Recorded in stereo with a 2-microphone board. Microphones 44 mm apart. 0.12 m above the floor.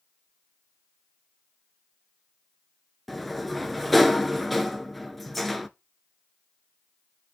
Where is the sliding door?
5° left (ahead or behind), 0.6 m.